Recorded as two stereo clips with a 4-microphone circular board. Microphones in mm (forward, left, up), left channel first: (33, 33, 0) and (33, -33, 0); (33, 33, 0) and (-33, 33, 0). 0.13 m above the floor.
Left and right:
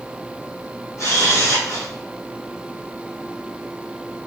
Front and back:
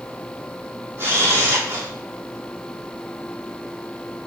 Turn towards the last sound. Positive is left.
turn(degrees=130)